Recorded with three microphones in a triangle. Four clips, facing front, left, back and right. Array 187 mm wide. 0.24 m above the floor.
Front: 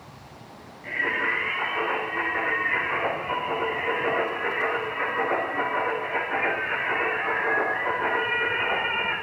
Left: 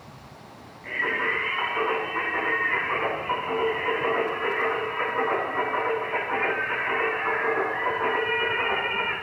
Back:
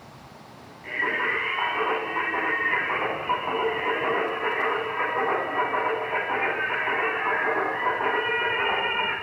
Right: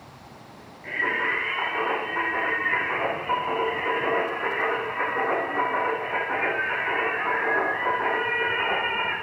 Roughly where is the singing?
Behind right.